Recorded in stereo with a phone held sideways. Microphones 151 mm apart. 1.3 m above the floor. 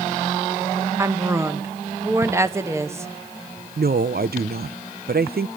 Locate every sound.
1.0 s a woman speaking: 15° right (ahead or behind), 1.2 m
3.8 s a woman speaking: 80° right, 0.6 m